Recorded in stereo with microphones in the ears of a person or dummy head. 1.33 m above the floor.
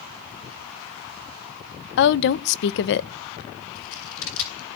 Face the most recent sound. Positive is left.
turn(degrees=75)  # may be behind; listen again after turning